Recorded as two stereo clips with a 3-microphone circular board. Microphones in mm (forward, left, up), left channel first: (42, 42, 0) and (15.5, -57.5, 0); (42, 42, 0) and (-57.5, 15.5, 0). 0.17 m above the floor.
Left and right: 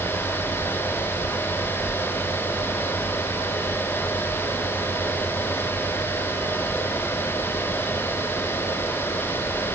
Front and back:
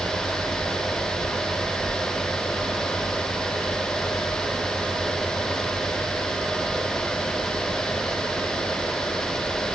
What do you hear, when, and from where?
Only background noise.